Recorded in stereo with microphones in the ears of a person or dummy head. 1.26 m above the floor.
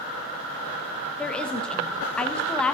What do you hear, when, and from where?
1.2 s a woman speaking: 5° left (ahead or behind), 1.0 m